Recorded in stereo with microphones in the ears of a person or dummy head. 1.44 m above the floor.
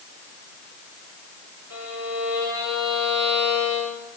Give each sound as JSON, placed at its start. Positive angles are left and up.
{"t": 1.7, "sound": "a violin", "side_deg": -85, "distance_m": 4.5}